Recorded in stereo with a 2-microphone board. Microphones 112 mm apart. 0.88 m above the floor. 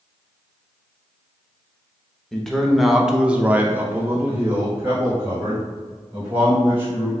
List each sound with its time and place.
2.3 s a man speaking: 5° left (ahead or behind), 0.9 m; by 7.1 s 15° right (ahead or behind), 2.5 m